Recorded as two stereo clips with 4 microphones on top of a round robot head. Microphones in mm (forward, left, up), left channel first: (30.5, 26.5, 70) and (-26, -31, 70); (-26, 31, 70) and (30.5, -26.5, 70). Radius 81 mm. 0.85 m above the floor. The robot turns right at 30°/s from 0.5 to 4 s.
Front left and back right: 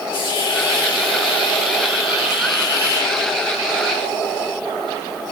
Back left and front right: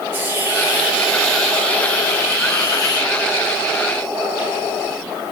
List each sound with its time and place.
0.1 s a hiss: 20° left, 6.5 m; by 3.1 s 100° left, 6.5 m